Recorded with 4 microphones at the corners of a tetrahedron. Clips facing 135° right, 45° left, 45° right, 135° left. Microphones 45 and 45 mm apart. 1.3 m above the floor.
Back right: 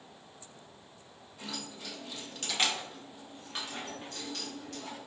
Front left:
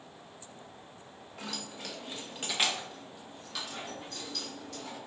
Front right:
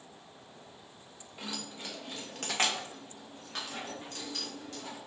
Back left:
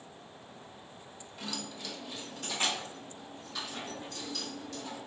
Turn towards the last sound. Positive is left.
turn(degrees=-95)